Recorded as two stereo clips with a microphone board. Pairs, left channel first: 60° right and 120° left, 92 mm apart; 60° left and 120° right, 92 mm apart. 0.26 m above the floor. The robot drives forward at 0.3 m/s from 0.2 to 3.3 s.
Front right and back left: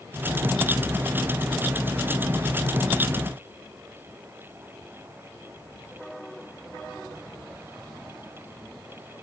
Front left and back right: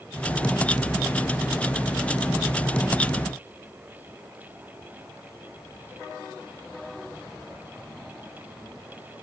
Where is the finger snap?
I don't hear a finger snap.